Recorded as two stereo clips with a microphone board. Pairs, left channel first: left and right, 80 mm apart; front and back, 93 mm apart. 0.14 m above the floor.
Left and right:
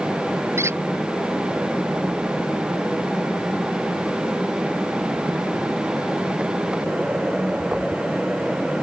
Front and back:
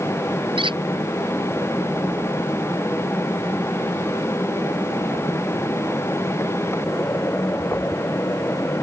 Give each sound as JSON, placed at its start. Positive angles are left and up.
{"t": 0.6, "sound": "a squeak", "azimuth_deg": -150}